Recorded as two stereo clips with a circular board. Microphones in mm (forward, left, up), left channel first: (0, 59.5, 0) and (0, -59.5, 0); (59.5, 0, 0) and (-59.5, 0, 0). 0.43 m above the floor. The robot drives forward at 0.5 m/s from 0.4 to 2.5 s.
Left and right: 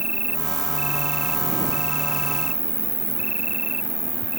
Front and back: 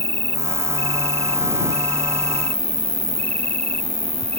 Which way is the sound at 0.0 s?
70° left.